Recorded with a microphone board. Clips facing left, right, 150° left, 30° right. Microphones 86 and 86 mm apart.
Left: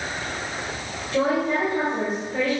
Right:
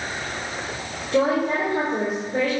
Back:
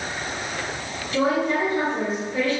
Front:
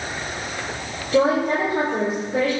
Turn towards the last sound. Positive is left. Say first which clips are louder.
# right 2 dB, front 3 dB
turn(degrees=-50)